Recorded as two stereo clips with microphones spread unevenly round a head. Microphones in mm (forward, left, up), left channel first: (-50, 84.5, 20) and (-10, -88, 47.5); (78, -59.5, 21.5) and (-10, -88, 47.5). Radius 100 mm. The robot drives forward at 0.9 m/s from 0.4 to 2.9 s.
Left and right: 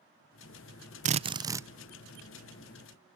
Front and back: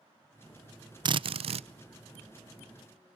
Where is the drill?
120° right, 0.5 m; by 1.7 s 155° right, 0.9 m.